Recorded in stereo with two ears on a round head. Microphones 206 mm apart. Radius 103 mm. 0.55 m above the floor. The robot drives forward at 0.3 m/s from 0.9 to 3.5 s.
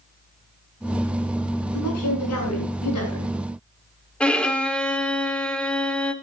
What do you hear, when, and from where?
1.7 s a woman speaking: 80° left, 7 m; by 3.3 s 75° left (ahead or behind), 7 m
4.2 s a violin: 5° left (ahead or behind), 1.9 m